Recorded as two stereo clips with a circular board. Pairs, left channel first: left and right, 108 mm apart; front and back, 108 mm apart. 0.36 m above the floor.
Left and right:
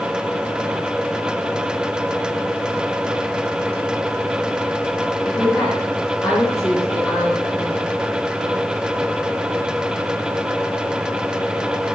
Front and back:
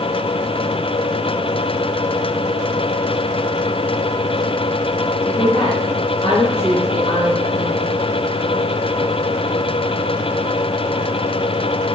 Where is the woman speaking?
25° left, 4.5 m.